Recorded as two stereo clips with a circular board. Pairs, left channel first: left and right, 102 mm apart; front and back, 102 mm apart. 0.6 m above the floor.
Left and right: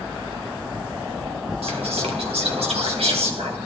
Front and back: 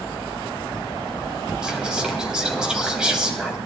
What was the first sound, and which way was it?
Whispering, 100° right.